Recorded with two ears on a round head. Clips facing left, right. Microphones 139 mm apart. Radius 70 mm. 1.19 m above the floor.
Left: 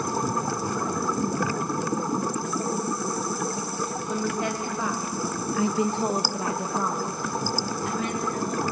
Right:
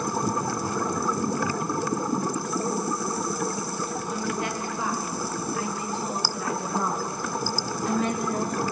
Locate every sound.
4.1 s a woman speaking: 85° left, 3 m; by 8.6 s 45° right (ahead or behind), 3 m